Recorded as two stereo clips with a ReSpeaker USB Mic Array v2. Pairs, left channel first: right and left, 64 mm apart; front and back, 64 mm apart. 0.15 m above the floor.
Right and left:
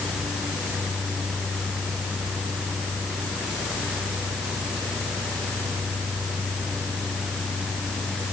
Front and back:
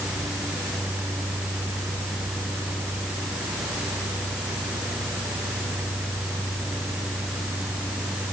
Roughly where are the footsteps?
No footsteps in this recording.